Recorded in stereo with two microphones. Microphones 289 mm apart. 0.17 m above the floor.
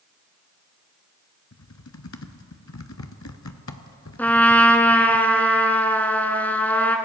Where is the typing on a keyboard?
70° left (ahead or behind), 0.7 m.